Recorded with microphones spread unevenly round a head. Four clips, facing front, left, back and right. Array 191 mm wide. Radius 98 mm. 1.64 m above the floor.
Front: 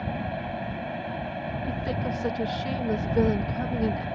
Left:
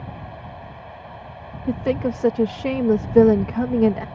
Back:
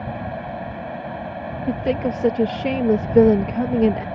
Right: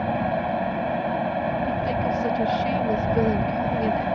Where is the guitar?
No guitar in this recording.